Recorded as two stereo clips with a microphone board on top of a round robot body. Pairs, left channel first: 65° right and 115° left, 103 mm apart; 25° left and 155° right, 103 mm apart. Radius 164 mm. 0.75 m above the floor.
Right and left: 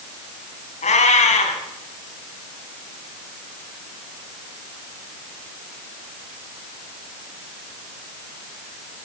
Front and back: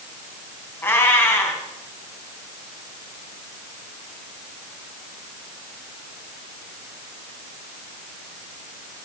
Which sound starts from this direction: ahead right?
A cat meowing, at 0.8 s.